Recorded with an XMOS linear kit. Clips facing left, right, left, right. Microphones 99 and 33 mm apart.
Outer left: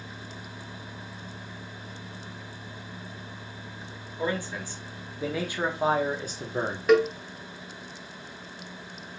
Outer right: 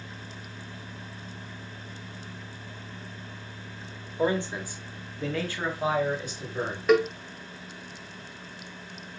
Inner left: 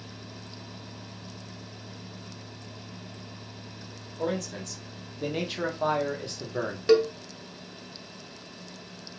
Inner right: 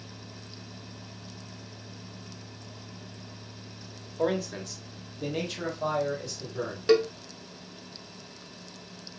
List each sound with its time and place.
4.2 s a man speaking: 25° right (ahead or behind), 1.4 m; by 6.8 s 50° left (ahead or behind), 1.6 m
6.9 s a cowbell: centre (ahead or behind), 1.0 m